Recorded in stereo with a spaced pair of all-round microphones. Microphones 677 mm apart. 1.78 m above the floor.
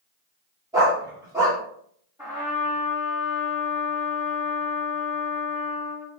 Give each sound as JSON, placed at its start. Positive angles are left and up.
{"t": 0.7, "sound": "a dog barking", "side_deg": -5, "distance_m": 1.5}
{"t": 2.2, "sound": "a trumpet", "side_deg": -5, "distance_m": 1.6}